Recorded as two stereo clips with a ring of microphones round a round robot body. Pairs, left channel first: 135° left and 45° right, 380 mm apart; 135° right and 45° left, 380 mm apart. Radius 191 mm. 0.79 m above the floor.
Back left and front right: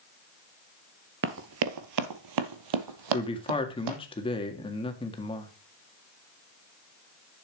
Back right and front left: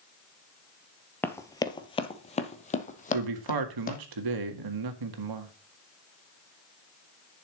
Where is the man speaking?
60° left, 1.8 m.